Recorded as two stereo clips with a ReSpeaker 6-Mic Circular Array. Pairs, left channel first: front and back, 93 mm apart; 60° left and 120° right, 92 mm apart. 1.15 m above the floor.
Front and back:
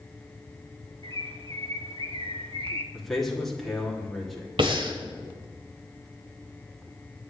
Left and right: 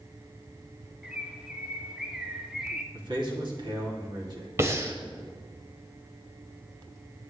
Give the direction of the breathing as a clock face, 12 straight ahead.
6 o'clock.